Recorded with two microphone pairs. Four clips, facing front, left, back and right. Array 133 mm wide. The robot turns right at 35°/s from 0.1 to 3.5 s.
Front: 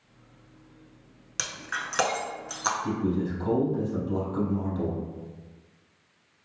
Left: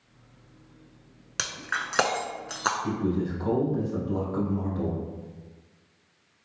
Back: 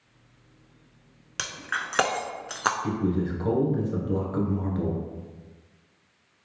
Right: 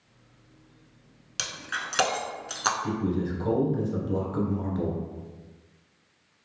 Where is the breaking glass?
115° left, 0.5 m; by 2.7 s 165° left, 0.5 m.